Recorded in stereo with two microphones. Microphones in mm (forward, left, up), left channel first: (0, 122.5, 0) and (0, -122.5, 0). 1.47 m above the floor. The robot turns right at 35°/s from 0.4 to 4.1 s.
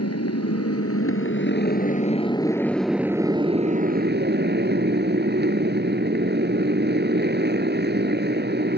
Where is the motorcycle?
95° left; by 8.8 s 135° right.